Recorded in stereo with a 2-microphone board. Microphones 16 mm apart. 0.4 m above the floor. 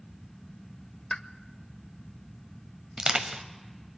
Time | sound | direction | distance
1.1 | a pop | 55° left (ahead or behind) | 0.5 m
3.0 | crushing | 70° right (ahead or behind) | 1.0 m